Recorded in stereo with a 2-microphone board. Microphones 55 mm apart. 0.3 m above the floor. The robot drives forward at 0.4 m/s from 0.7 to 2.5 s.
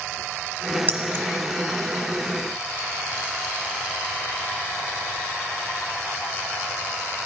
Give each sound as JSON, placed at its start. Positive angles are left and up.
{"t": 0.9, "sound": "keys jangling", "side_deg": -40, "distance_m": 1.0}